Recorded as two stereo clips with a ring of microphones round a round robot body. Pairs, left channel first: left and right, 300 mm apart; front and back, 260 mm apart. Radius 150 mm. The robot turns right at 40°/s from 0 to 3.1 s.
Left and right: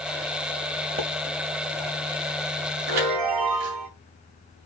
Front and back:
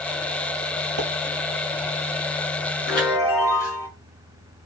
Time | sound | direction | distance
1.0 | a pop | 165° right | 6 m
2.9 | a chime | 90° right | 5 m